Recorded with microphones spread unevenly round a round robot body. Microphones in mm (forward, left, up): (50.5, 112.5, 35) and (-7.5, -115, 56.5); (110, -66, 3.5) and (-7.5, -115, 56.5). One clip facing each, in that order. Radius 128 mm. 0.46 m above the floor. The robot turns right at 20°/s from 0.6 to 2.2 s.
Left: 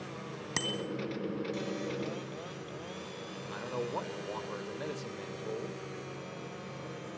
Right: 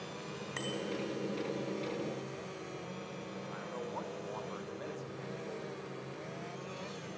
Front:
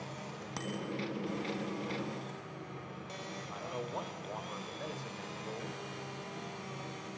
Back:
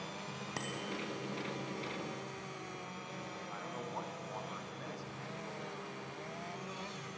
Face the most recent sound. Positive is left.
turn(degrees=70)